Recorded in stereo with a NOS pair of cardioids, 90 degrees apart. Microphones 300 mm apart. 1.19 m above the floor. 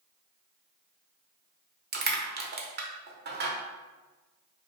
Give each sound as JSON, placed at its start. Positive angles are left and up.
{"t": 1.9, "sound": "crushing", "azimuth_deg": -35, "distance_m": 0.7}